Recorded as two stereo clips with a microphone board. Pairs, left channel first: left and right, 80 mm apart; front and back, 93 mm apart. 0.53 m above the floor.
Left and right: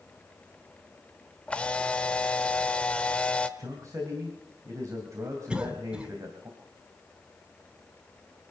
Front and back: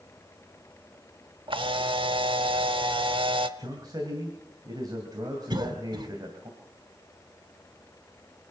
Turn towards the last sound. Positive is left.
turn(degrees=-165)